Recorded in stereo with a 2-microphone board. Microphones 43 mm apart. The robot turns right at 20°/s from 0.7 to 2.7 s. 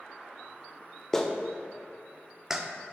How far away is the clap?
About 0.5 m.